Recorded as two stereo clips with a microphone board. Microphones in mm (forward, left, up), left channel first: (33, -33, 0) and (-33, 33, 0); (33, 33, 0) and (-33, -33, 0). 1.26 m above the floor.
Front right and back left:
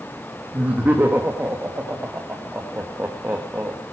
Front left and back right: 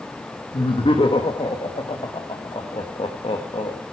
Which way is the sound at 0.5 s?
65° left.